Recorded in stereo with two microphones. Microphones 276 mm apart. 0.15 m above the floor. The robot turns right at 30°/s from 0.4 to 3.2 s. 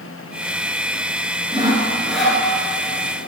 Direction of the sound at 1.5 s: 15° right (ahead or behind).